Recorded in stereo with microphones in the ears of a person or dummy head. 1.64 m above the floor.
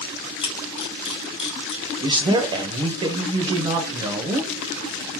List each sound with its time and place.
0.4 s a camera shutter: 35° left (ahead or behind), 0.7 m
2.0 s a man speaking: 25° right (ahead or behind), 0.6 m